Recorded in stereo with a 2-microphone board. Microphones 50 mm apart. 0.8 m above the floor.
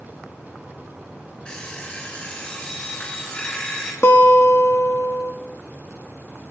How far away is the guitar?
About 1.2 m.